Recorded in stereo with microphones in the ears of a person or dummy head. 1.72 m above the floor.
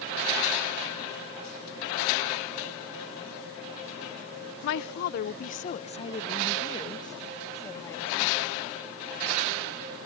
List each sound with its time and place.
4.6 s a woman speaking: 65° left (ahead or behind); by 8.4 s 15° left (ahead or behind)